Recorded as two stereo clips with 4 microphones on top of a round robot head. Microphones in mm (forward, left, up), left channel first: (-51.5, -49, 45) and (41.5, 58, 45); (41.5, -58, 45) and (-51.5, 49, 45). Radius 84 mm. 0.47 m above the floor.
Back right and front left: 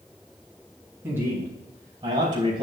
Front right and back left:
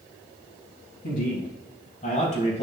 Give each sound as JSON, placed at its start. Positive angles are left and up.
{"t": 1.0, "sound": "a man speaking", "azimuth_deg": -25, "distance_m": 4.5}